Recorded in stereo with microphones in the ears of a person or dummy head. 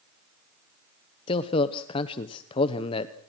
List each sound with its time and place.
1.3 s a man speaking: 30° left (ahead or behind), 1.0 m